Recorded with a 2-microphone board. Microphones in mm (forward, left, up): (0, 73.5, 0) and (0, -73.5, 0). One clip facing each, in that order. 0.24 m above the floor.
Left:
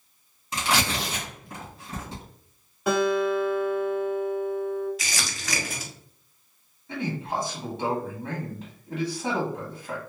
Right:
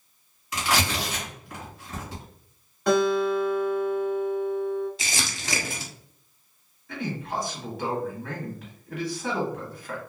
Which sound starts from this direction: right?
Crumpling, at 5.0 s.